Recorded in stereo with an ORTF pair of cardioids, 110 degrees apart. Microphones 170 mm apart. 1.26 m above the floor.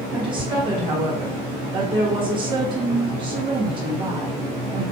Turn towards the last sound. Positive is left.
turn(degrees=-30)